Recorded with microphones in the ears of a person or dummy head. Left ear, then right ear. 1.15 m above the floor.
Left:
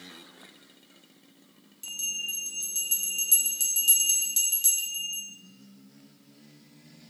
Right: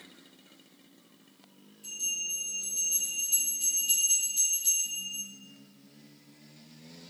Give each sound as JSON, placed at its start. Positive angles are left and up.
{"t": 1.8, "sound": "a bell", "side_deg": 55, "distance_m": 1.8}